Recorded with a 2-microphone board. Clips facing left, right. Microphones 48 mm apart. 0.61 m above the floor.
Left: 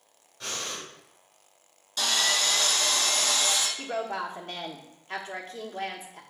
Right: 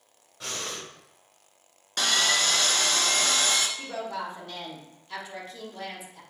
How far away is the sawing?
About 1.1 m.